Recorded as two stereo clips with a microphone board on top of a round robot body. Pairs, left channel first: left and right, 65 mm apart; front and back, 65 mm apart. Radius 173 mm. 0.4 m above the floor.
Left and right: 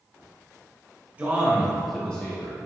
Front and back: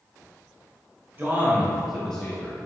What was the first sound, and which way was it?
A man speaking, 145° right.